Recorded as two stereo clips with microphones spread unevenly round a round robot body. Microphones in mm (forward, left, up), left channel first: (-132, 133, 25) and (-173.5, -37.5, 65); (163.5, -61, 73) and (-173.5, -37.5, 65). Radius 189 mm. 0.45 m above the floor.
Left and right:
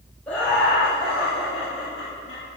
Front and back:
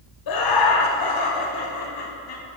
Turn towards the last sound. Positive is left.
turn(degrees=20)